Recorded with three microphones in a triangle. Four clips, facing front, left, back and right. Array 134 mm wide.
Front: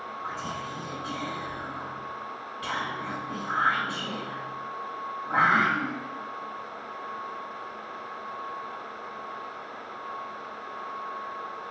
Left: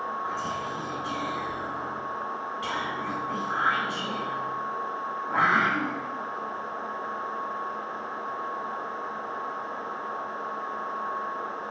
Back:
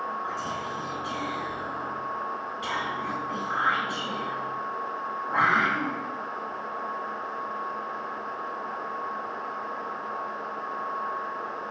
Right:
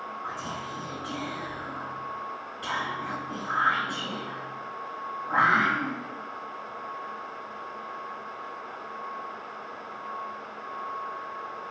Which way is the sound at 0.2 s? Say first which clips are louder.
Left 4 dB, back 3 dB; 60° right.